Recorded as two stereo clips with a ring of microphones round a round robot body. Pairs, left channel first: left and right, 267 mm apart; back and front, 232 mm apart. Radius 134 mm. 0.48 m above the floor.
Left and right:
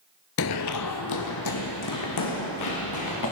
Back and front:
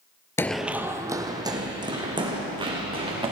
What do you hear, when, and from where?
0.4 s running footsteps: 105° left, 0.5 m; by 3.3 s 70° left, 4 m